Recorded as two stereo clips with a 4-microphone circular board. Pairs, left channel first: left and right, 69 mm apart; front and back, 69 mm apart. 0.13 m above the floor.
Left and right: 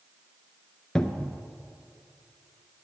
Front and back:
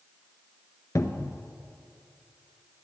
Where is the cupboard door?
15° left, 0.6 m.